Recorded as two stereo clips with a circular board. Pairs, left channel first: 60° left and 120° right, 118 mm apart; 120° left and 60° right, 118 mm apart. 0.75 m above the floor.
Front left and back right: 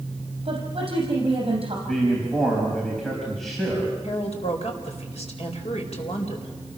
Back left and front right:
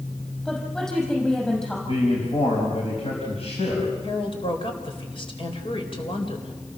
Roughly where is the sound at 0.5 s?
Behind right.